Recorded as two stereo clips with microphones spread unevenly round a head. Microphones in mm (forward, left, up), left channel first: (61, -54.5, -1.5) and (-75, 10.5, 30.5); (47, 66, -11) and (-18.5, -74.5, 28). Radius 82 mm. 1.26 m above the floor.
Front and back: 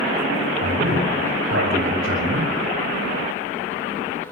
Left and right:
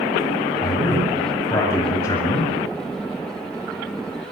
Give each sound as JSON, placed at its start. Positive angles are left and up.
{"t": 0.6, "sound": "a man speaking", "azimuth_deg": 140, "distance_m": 7.0}